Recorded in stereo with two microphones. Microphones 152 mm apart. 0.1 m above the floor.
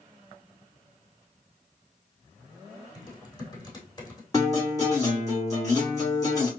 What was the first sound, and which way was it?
Typing on a keyboard, 25° left (ahead or behind).